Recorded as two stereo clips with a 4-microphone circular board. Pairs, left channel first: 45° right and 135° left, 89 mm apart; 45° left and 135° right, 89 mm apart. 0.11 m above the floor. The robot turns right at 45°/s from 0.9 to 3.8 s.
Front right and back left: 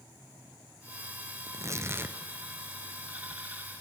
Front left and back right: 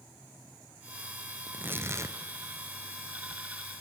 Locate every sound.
1.5 s tearing paper: 160° left, 1.3 m; by 2.2 s 165° right, 1.3 m